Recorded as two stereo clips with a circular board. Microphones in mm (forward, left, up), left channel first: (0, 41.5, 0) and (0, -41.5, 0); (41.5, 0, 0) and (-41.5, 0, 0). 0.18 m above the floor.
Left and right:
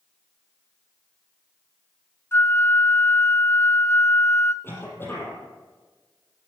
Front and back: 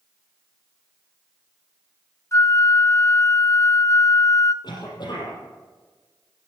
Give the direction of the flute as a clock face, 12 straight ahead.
11 o'clock.